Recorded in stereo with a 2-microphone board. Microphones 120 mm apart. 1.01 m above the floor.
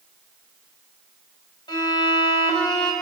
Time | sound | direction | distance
1.7 | a violin | 40° left (ahead or behind) | 3.5 m